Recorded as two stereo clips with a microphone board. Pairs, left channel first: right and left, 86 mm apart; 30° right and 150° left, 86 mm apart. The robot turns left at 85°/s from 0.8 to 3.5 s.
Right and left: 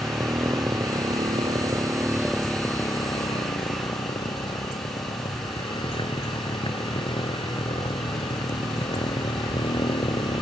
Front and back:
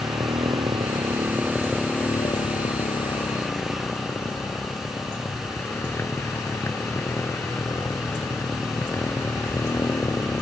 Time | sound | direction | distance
0.0 | a motorcycle | 140° left | ?